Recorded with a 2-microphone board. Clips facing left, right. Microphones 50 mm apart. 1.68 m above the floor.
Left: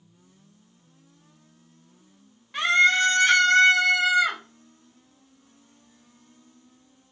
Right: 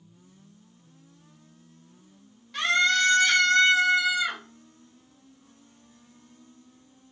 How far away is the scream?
About 1.5 m.